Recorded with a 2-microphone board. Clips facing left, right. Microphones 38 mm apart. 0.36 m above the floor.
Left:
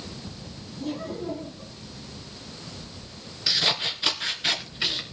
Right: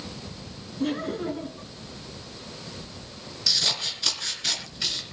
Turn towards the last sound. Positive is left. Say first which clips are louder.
# left 2 dB
turn(degrees=20)  # may be behind; listen again after turning